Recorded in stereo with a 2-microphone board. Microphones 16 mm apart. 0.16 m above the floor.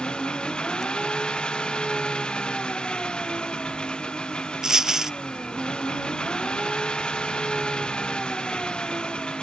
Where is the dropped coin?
35° right (ahead or behind).